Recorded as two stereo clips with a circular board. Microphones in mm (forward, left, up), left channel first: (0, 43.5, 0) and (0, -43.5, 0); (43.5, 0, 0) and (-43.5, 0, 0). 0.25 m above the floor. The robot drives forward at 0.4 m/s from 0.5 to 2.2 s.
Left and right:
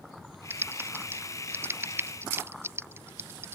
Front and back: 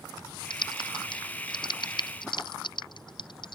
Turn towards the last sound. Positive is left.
turn(degrees=-25)